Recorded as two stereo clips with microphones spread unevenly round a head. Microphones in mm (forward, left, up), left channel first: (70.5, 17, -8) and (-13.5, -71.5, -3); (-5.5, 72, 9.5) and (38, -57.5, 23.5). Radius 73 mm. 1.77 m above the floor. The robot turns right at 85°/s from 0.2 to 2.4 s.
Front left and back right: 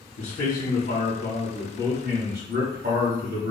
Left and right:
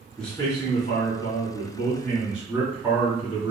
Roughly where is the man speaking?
Ahead.